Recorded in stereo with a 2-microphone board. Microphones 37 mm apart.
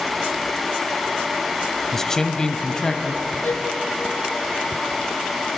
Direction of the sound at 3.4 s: 65° left (ahead or behind).